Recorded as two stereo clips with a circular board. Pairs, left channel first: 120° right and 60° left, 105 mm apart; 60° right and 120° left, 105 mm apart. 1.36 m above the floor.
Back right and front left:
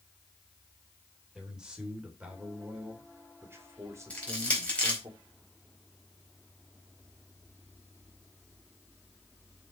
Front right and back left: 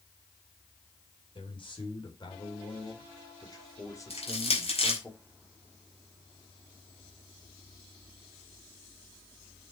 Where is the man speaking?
25° right, 4.5 m; by 5.1 s 10° left, 3 m.